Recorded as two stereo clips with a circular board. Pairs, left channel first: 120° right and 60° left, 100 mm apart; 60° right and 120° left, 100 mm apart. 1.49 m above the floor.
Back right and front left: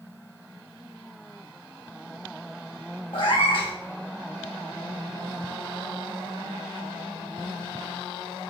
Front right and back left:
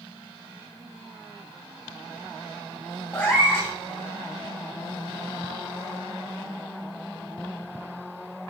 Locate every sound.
3.1 s a cat meowing: 135° right, 2 m